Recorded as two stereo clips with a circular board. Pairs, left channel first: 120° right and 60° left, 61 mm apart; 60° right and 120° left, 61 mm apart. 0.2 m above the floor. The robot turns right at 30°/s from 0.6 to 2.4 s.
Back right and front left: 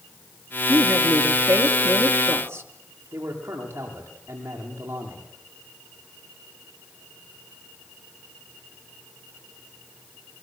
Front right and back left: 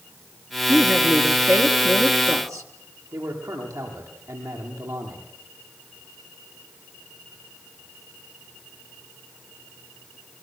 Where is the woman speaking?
60° left, 3.5 m; by 2.7 s 110° left, 3.5 m.